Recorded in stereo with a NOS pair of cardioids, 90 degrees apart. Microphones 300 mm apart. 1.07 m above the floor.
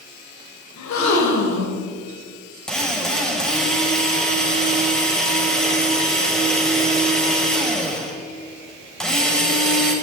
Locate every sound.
0.8 s a gasp: 65° left, 3 m
2.7 s a drill: straight ahead, 5.5 m